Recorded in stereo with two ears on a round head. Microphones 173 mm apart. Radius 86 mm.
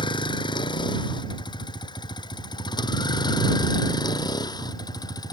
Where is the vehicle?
25° left (ahead or behind).